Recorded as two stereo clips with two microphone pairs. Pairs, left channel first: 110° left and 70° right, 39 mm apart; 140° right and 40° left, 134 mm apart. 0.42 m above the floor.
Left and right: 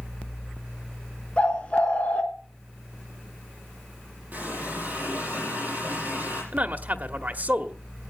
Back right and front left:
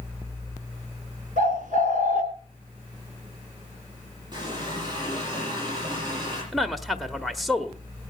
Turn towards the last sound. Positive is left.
turn(degrees=-50)